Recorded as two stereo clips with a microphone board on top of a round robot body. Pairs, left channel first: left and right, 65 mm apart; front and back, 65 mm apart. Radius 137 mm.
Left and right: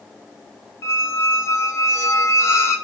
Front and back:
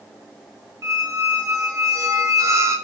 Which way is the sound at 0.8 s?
135° left.